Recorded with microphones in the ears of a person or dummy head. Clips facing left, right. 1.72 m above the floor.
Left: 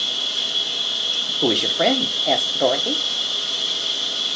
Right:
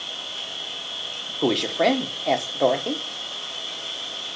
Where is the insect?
60° left (ahead or behind), 2 m.